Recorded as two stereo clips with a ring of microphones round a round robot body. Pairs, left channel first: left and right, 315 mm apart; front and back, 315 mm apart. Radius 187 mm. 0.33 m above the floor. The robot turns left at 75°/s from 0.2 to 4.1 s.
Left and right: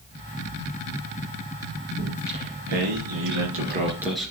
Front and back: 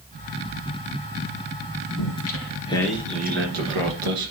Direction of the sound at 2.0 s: 20° right.